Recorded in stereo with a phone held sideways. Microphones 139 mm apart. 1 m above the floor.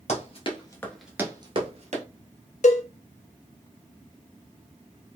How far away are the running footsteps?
About 1.5 m.